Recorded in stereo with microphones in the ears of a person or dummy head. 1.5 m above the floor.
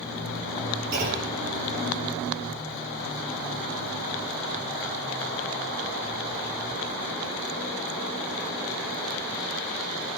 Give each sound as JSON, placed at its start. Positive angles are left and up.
{"t": 0.9, "sound": "a clunk", "side_deg": -55, "distance_m": 8.5}